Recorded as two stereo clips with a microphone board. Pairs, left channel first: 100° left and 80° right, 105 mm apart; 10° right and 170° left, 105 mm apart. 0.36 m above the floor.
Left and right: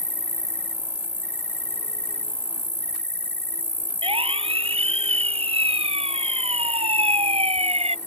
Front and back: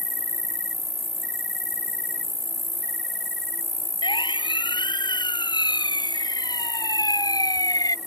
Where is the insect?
70° left.